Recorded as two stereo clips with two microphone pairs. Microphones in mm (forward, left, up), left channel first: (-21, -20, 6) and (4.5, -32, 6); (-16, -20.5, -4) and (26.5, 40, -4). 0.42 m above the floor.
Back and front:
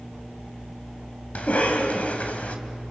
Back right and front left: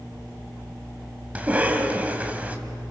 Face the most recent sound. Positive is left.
turn(degrees=125)